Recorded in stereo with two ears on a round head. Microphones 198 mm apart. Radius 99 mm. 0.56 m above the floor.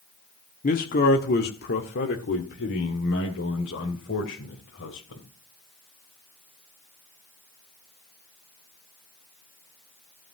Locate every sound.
0.6 s a man speaking: 35° left (ahead or behind), 1.3 m; by 5.2 s 60° left (ahead or behind), 3 m